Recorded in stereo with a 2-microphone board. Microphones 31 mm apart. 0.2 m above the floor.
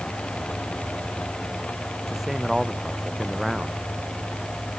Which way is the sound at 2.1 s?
5° right (ahead or behind).